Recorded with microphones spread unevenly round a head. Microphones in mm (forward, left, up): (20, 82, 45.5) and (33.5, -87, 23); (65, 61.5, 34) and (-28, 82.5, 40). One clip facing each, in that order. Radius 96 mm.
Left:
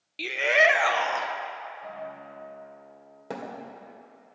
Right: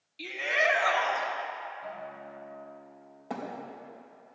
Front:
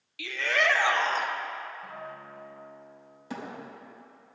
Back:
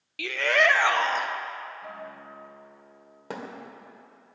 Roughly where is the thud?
Behind left.